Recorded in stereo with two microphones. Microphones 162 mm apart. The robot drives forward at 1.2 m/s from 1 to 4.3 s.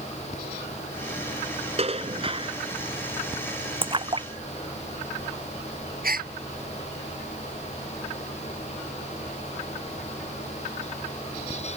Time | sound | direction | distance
1.8 | dishes clattering | 40° right (ahead or behind) | ?
3.8 | a splash | 35° right (ahead or behind) | ?
6.0 | a gasp | 65° right (ahead or behind) | ?